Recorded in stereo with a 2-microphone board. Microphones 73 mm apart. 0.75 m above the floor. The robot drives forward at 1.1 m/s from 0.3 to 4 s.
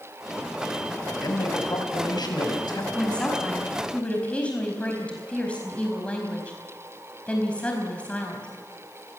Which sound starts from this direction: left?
A man speaking, at 1.2 s.